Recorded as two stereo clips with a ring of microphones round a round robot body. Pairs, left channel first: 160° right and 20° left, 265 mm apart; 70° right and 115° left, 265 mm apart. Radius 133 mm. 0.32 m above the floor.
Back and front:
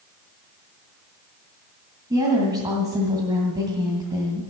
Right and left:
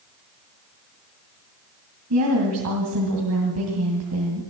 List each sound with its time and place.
2.1 s a woman speaking: 95° left, 2.5 m